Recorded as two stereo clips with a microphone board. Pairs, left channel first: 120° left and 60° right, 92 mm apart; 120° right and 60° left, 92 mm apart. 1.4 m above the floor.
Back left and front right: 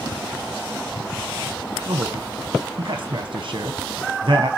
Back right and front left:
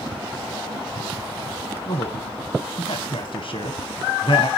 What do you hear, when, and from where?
1.9 s a man speaking: 100° right, 0.9 m